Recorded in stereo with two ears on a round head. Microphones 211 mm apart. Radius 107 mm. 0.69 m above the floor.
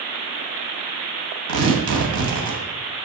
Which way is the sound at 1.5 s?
85° right.